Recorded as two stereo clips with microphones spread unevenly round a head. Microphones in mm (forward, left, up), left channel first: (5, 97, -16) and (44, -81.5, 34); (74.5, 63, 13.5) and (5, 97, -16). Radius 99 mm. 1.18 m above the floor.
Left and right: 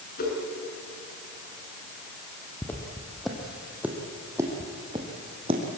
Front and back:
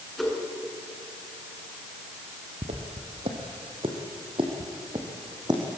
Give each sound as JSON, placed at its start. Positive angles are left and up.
{"t": 0.2, "sound": "a whoosh", "azimuth_deg": 60, "distance_m": 7.0}
{"t": 2.6, "sound": "footsteps", "azimuth_deg": -170, "distance_m": 3.0}